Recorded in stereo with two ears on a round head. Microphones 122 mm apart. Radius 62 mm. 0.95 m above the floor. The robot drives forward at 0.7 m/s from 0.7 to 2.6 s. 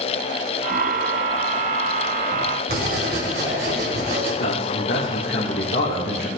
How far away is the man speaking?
About 1.9 m.